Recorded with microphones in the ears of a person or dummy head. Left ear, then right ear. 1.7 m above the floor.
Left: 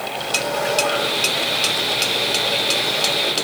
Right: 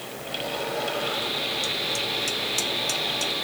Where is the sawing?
55° left (ahead or behind), 7.5 m.